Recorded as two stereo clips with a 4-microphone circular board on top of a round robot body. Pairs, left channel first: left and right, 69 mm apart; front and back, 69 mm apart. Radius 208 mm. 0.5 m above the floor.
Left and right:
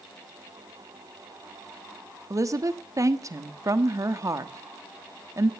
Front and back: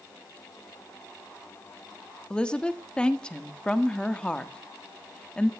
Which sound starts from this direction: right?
A woman speaking, at 2.3 s.